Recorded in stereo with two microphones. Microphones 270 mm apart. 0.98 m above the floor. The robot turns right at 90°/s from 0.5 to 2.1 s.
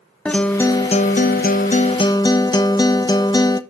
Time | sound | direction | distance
0.2 | a guitar | 10° left | 0.6 m